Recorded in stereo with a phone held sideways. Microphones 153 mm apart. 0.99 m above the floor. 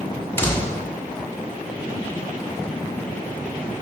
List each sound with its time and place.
0.4 s a door slam: 15° left (ahead or behind), 1.7 m